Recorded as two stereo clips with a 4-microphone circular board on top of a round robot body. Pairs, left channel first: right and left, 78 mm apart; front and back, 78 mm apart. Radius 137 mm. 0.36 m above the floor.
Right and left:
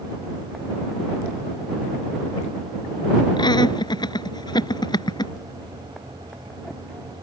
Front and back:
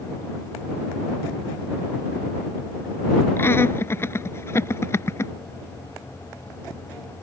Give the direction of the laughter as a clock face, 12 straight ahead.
2 o'clock.